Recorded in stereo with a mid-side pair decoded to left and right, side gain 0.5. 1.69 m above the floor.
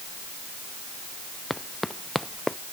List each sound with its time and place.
1.5 s running footsteps: 10° left